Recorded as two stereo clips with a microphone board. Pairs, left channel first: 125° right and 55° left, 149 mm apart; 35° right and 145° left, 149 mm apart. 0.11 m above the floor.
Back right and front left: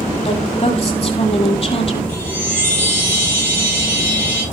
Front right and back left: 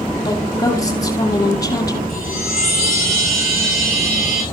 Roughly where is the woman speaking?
Right.